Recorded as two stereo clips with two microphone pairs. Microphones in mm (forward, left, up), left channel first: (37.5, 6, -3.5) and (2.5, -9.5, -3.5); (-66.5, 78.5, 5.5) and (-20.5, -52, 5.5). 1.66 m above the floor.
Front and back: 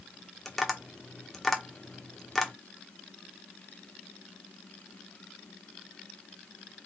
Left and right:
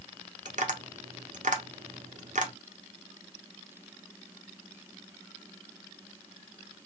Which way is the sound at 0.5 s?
60° right.